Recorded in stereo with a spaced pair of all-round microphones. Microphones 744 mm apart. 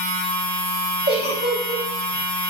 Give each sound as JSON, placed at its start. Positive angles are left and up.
{"t": 0.0, "sound": "a machine running", "side_deg": 65, "distance_m": 1.5}
{"t": 1.1, "sound": "a giggle", "side_deg": -15, "distance_m": 1.4}